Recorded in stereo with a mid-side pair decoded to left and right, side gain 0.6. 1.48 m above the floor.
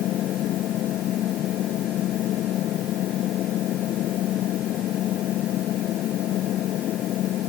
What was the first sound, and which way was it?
An engine running, 55° left.